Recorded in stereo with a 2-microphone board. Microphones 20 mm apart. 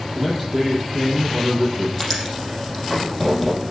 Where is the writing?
5° right (ahead or behind), 5.5 m.